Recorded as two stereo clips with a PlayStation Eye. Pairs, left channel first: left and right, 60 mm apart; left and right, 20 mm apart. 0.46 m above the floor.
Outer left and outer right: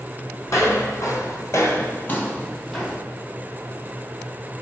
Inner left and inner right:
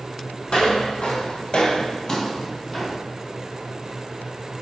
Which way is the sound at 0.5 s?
55° left (ahead or behind).